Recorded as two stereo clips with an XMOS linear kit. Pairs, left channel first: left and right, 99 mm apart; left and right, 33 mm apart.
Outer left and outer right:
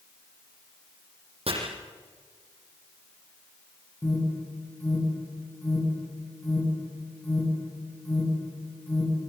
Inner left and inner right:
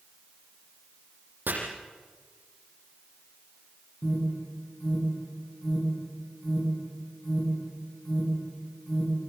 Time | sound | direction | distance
1.5 | chopping | 70° right (ahead or behind) | 7 m
4.0 | an alarm | 20° left (ahead or behind) | 9 m